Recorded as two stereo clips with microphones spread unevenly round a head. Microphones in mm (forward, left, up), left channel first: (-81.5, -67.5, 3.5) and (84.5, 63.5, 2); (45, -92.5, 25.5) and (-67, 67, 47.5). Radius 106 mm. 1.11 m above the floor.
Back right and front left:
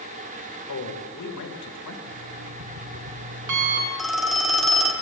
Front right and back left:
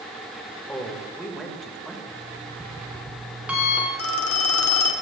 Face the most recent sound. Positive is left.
turn(degrees=-50)